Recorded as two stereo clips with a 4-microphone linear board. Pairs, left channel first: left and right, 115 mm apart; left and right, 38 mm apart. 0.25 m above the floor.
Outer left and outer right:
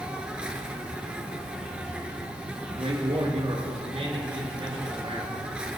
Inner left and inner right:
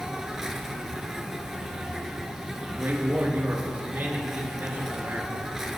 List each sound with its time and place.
0.0 s an insect: 10° right (ahead or behind), 1.4 m
2.7 s a man speaking: 65° right (ahead or behind), 4 m